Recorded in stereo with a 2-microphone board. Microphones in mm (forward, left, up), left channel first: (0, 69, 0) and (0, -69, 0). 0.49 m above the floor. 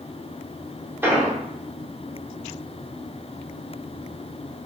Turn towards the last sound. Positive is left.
turn(degrees=-15)  # may be behind; listen again after turning